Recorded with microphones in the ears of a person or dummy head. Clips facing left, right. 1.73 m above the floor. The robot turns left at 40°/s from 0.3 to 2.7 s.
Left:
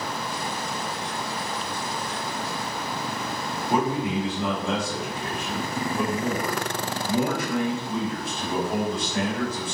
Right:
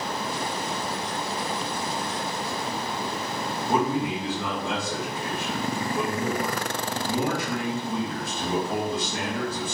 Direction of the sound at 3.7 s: 30° right (ahead or behind).